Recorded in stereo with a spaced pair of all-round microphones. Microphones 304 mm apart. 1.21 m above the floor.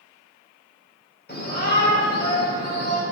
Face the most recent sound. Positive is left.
turn(degrees=35)  # may be behind; listen again after turning